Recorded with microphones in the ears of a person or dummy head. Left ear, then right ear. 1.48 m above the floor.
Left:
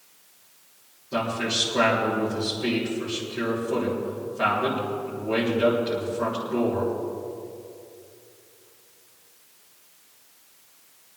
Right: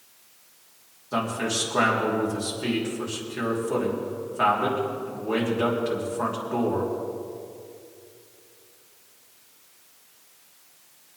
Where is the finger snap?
No finger snap in this recording.